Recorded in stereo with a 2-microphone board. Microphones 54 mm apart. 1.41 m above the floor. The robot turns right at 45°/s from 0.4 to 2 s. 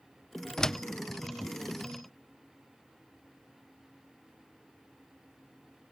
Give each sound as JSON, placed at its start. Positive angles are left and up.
{"t": 0.6, "sound": "a door slam", "side_deg": 15}